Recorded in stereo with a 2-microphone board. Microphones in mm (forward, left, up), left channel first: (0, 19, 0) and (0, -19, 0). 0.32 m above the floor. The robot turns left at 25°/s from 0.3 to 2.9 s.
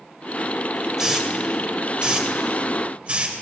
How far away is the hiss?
About 0.8 m.